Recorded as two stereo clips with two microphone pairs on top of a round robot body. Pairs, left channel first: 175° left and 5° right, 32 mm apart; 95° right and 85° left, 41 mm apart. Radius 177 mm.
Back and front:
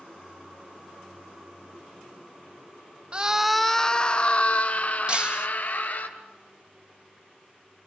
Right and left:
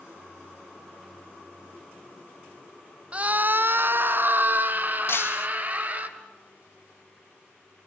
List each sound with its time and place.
3.1 s a scream: 35° left, 0.9 m; by 6.1 s 135° left, 3 m
5.1 s breaking glass: 65° right, 1.2 m